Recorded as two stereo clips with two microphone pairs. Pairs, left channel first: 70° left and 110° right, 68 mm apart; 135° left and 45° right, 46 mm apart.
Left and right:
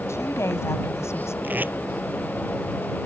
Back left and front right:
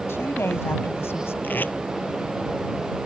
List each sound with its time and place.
0.1 s a woman speaking: 115° left
1.4 s tape being pulled: 175° right